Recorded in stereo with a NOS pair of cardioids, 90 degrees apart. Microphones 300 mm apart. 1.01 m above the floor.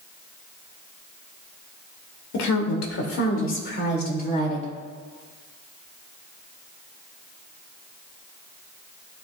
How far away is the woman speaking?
About 2.5 m.